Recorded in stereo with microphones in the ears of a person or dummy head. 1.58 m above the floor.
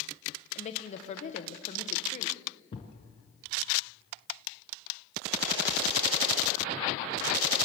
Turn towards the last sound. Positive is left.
turn(degrees=35)  # may be behind; listen again after turning